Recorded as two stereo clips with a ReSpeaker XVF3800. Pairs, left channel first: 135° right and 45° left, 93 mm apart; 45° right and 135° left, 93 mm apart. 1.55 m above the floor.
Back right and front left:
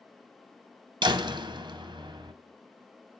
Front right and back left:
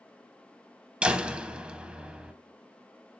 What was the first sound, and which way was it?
A door slam, 60° left.